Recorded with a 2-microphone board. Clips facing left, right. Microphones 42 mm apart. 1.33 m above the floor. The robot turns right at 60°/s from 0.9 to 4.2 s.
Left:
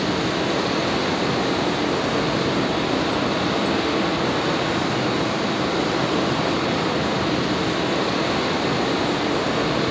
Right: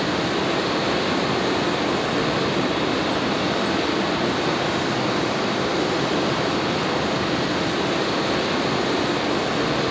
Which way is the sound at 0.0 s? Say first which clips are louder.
Even; 145° right.